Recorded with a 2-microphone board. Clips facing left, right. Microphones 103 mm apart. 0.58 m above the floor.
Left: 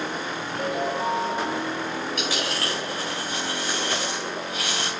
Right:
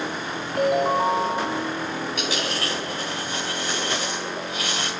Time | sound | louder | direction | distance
0.6 | a ringtone | right 7 dB | 65° right (ahead or behind) | 1.6 m
2.2 | a dropped coin | right 1 dB | 20° right (ahead or behind) | 6.5 m